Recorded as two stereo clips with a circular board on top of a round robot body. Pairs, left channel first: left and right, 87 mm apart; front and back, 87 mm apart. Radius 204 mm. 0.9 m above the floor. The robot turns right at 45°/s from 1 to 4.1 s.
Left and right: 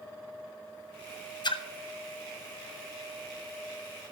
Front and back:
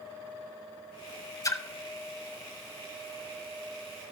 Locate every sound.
1.4 s a splash: 50° left, 0.9 m; by 1.6 s 60° left, 0.9 m